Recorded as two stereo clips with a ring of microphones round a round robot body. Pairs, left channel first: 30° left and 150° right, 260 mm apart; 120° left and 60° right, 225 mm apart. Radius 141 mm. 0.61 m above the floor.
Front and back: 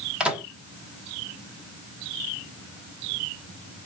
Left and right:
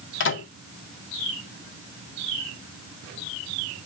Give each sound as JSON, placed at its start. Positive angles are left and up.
{"t": 0.2, "sound": "a microwave", "azimuth_deg": 125, "distance_m": 1.1}